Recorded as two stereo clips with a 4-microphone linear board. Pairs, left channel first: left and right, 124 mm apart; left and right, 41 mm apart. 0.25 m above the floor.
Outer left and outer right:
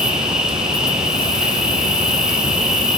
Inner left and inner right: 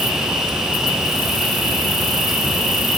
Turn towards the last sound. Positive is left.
turn(degrees=-5)  # may be behind; listen again after turning